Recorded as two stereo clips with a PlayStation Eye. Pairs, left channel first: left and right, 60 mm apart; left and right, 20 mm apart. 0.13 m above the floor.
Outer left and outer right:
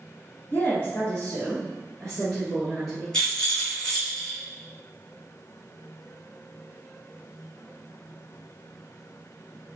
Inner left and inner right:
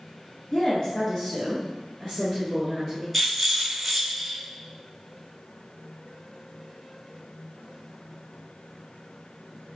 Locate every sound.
0.5 s a woman speaking: 35° left (ahead or behind), 1.4 m; by 3.0 s centre (ahead or behind), 1.9 m
3.1 s a rattle: 10° left (ahead or behind), 2 m